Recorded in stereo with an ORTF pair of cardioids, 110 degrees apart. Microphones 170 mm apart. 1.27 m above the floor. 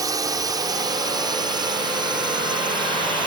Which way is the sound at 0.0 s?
20° right.